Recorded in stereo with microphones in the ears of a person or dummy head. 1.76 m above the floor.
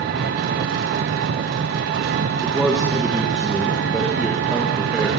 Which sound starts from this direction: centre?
A man speaking, at 2.4 s.